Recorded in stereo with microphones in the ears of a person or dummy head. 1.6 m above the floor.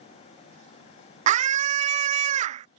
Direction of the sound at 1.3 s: 45° right (ahead or behind).